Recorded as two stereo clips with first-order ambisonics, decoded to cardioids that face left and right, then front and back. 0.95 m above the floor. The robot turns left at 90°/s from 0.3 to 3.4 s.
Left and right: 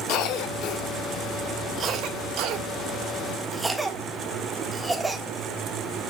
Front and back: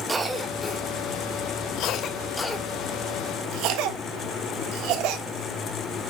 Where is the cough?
105° left, 1.4 m; by 5.2 s 175° right, 1.4 m.